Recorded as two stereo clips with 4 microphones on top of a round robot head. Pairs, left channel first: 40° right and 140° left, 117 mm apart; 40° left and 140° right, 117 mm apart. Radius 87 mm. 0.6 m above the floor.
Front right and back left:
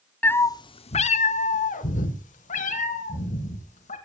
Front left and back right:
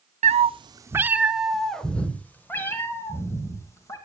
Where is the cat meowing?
115° right, 0.7 m; by 4.0 s 25° right, 3 m.